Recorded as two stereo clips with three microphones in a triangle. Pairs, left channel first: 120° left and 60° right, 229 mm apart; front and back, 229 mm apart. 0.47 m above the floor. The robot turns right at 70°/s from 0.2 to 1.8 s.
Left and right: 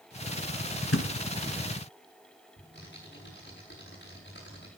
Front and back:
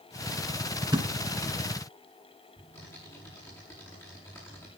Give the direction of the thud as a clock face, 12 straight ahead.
8 o'clock.